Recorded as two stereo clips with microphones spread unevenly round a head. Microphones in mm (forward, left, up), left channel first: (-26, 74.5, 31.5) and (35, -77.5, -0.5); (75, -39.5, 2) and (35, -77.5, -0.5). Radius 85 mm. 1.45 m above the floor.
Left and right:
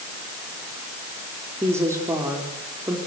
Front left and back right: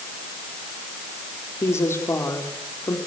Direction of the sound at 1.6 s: 10° left.